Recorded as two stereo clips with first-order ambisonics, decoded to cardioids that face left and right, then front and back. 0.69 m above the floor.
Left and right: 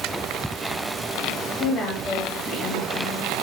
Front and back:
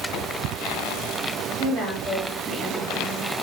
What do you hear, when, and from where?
1.6 s a woman speaking: 140° left, 1.3 m